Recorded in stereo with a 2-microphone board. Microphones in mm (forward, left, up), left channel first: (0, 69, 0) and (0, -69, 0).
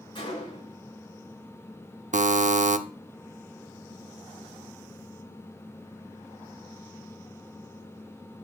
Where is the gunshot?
40° left (ahead or behind), 5.5 m.